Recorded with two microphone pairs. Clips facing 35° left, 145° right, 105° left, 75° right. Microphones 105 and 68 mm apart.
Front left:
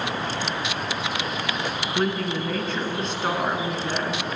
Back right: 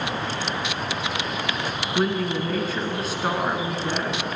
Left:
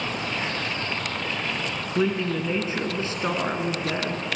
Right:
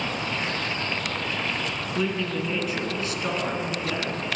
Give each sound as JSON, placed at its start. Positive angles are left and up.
{"t": 1.9, "sound": "a man speaking", "azimuth_deg": 135, "distance_m": 1.3}